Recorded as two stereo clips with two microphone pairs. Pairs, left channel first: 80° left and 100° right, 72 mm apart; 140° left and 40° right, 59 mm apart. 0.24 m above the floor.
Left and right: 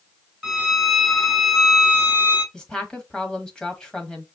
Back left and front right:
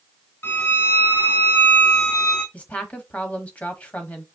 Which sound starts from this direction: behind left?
A woman speaking, at 2.5 s.